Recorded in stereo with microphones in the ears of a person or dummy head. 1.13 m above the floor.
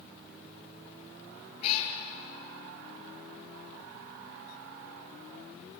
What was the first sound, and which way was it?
A cat meowing, 55° left (ahead or behind).